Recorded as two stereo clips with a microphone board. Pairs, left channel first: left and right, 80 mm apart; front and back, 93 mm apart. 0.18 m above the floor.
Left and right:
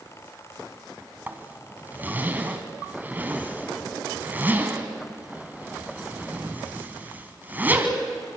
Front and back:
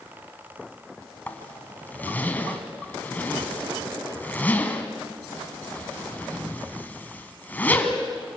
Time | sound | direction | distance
1.3 | a zipper | 50° right | 1.6 m